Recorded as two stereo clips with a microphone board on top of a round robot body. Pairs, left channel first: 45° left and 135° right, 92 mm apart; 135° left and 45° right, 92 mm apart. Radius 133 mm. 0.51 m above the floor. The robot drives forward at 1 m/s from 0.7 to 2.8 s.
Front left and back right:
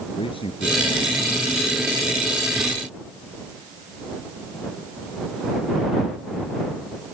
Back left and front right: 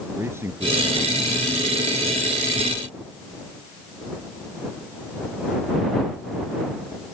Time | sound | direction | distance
0.2 | a man speaking | 20° left | ?